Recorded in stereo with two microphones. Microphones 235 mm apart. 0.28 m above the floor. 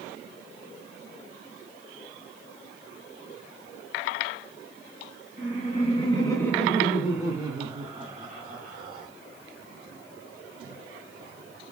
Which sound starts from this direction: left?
Laughter, at 5.4 s.